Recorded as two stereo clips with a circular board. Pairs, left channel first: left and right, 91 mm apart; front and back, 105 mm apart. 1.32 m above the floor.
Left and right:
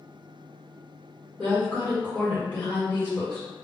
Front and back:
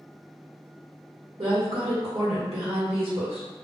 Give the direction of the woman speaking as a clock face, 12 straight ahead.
7 o'clock.